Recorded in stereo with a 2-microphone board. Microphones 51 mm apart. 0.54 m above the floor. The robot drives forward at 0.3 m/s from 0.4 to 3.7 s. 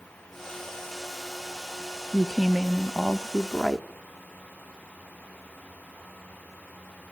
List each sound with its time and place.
2.1 s a woman speaking: 5° left (ahead or behind), 0.9 m